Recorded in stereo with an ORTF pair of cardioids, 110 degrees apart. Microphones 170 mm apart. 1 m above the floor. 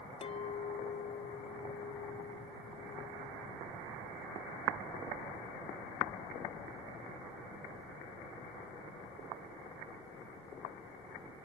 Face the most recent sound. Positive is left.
turn(degrees=35)